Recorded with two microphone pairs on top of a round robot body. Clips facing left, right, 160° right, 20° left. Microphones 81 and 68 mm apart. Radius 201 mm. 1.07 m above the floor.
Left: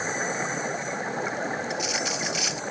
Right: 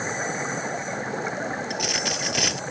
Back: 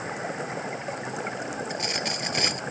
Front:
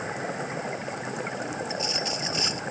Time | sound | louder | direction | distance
1.7 | a dropped coin | right 1 dB, even | 120° right | ?